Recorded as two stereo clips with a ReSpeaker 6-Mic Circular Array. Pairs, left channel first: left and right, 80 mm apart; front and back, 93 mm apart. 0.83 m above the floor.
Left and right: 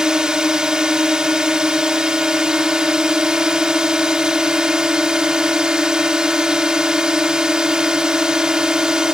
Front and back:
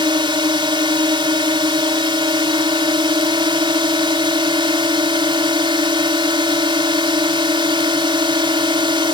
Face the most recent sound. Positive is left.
turn(degrees=-170)